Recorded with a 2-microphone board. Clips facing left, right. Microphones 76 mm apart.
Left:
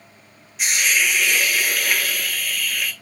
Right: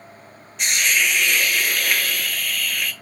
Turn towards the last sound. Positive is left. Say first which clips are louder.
# even
turn(degrees=5)  # may be behind; listen again after turning